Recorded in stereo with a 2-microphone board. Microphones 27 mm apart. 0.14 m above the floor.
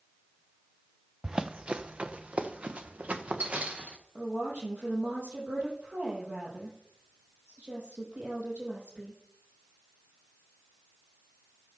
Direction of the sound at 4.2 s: 60° right (ahead or behind).